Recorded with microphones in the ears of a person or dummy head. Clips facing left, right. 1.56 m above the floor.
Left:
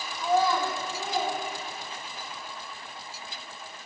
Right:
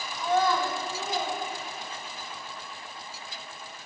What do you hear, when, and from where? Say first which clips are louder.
0.2 s a child speaking: left 1 dB; 10° left (ahead or behind), 1.4 m; by 2.3 s centre (ahead or behind), 3.5 m